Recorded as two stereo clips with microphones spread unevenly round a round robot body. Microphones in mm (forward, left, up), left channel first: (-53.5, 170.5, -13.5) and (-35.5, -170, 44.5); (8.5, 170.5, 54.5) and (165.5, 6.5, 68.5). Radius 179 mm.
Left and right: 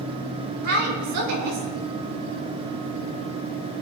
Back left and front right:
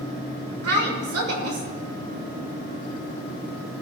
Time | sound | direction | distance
0.6 | a woman speaking | 35° right | 3 m